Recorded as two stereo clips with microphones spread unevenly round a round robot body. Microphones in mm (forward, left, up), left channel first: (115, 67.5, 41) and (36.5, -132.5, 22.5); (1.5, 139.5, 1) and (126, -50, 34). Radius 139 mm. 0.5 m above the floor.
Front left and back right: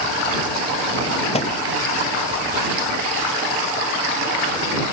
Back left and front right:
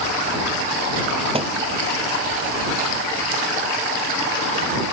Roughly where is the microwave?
Ahead.